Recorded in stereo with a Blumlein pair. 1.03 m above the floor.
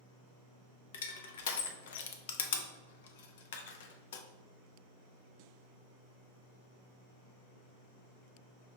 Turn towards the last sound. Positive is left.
turn(degrees=55)